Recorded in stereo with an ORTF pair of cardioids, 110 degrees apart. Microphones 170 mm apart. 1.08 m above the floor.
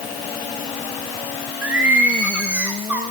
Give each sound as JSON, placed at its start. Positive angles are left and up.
{"t": 1.6, "sound": "singing", "azimuth_deg": -10, "distance_m": 3.5}